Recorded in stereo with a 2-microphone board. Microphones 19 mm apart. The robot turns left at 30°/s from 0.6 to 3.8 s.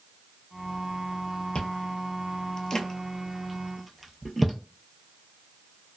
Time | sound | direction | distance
1.6 | chewing | 65° left (ahead or behind) | 0.6 m